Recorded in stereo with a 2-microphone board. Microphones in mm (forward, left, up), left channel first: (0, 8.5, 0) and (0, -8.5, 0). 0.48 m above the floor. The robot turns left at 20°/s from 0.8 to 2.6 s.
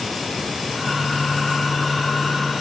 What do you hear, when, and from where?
Only background noise.